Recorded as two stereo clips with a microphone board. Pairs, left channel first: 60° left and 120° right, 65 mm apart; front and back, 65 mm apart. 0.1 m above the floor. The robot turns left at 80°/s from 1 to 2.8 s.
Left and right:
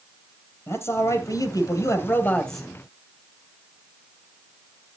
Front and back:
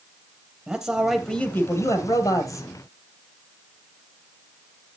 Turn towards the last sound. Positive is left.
turn(degrees=-45)